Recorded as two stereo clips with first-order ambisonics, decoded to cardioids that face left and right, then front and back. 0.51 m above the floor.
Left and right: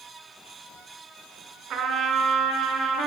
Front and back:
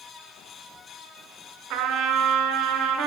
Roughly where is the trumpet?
Behind right.